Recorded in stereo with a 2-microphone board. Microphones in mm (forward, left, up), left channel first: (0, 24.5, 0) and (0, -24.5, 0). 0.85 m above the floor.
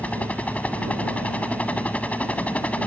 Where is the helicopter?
30° left (ahead or behind).